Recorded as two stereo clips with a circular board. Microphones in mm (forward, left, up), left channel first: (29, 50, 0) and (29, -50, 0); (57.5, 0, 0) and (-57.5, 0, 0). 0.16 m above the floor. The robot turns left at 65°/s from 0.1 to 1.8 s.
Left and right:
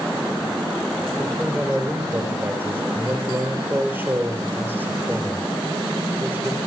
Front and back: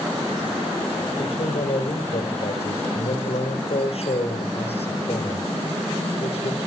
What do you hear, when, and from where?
1.2 s a man speaking: 20° left, 4.5 m; by 6.6 s 20° right, 4.5 m